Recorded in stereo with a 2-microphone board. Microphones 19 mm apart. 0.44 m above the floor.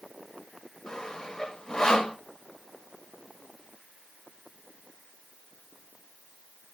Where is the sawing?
30° left (ahead or behind), 2 m.